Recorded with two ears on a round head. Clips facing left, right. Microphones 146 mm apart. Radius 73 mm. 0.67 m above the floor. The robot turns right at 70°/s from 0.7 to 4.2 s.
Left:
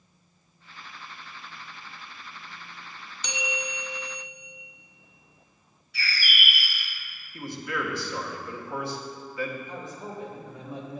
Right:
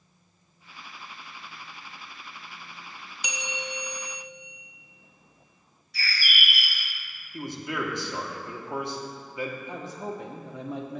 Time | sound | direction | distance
3.2 | a bell | 15° right | 0.9 m
5.9 | a bird | 35° right (ahead or behind) | 1.8 m
7.3 | a man speaking | 20° right (ahead or behind) | 1.1 m
9.7 | a man speaking | 55° right (ahead or behind) | 1.0 m